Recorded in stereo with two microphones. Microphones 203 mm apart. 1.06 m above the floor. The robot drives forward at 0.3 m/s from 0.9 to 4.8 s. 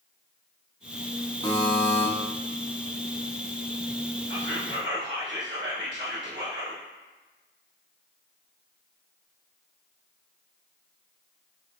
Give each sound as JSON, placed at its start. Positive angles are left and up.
{"t": 1.4, "sound": "a buzzer", "side_deg": 20, "distance_m": 1.2}
{"t": 4.3, "sound": "whispering", "side_deg": -65, "distance_m": 1.3}